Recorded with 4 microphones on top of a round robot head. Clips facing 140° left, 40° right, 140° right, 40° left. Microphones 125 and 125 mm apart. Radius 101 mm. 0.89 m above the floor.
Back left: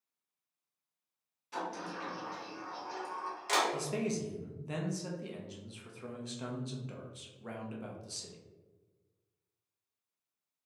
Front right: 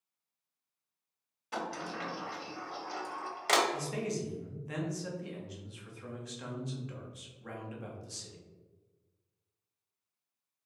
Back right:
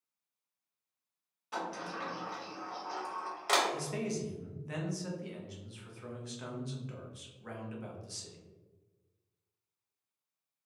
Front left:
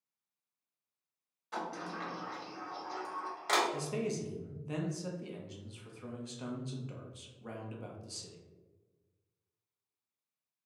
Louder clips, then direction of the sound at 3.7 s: Back left 1 dB, front left 1 dB; 95° left.